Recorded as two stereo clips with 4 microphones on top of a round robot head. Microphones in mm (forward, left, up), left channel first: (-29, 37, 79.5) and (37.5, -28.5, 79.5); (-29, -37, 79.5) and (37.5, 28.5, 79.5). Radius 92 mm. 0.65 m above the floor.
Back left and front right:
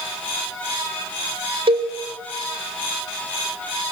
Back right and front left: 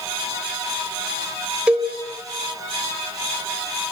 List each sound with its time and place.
1.7 s a cowbell: 30° right, 2.5 m